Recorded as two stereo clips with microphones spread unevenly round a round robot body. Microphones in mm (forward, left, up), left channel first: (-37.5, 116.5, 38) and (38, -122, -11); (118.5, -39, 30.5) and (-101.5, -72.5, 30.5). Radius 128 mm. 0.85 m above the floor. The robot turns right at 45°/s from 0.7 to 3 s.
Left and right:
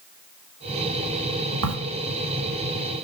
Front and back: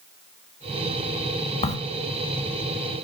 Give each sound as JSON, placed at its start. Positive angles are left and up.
{"t": 1.6, "sound": "a crack", "azimuth_deg": -55, "distance_m": 1.8}